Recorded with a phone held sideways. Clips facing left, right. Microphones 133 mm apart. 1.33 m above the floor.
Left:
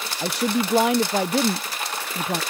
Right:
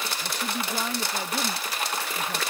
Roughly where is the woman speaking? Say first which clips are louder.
Left 12 dB; left.